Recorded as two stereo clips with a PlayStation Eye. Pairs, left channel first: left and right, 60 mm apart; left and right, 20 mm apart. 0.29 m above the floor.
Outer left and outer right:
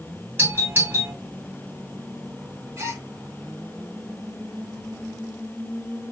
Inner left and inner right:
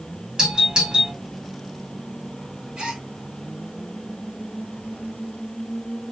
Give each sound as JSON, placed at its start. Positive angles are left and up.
{"t": 0.4, "sound": "a doorbell", "side_deg": -40, "distance_m": 3.0}
{"t": 2.8, "sound": "a gasp", "side_deg": -55, "distance_m": 2.5}